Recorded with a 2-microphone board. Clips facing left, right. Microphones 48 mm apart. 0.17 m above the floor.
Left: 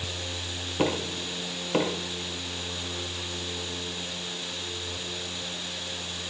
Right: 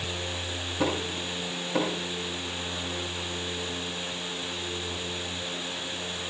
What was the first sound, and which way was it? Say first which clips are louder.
Knocking: left 1 dB; 50° left (ahead or behind).